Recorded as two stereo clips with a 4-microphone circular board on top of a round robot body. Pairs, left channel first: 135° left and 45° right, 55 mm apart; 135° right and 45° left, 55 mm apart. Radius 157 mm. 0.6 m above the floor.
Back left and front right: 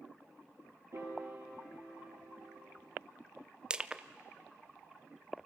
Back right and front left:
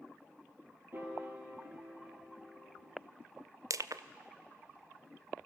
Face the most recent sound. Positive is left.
turn(degrees=30)